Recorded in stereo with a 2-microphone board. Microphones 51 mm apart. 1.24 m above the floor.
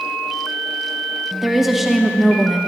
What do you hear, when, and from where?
1.4 s a woman speaking: 5° right (ahead or behind), 0.9 m